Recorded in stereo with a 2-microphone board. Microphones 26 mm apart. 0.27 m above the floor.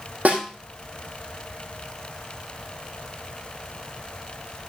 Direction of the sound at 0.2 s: 70° right (ahead or behind).